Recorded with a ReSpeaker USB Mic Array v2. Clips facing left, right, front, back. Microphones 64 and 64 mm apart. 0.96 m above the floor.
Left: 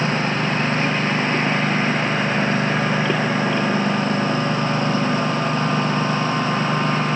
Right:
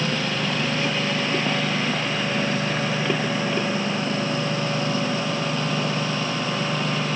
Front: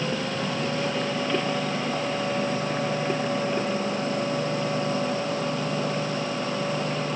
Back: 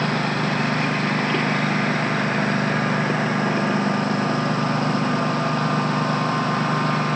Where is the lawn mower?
145° left.